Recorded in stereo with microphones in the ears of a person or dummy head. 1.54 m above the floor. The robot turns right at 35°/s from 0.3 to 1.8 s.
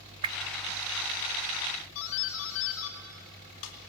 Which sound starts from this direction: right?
A whoosh, at 0.2 s.